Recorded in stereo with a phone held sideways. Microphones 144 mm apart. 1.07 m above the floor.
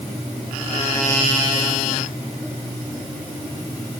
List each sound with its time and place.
Only background noise.